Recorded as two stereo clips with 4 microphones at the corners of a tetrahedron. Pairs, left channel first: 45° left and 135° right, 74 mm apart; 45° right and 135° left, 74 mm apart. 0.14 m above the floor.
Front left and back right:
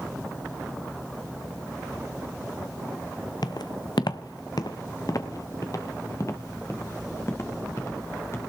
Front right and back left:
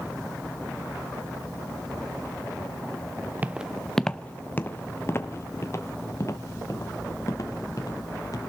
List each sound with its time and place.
3.4 s footsteps: 70° left, 0.6 m; by 8.4 s 10° right, 3 m